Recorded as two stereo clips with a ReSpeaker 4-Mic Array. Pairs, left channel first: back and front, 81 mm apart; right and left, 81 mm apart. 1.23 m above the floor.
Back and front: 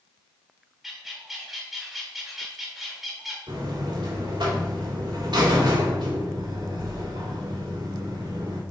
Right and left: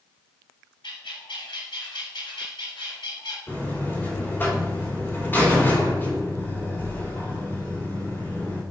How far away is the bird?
About 2 m.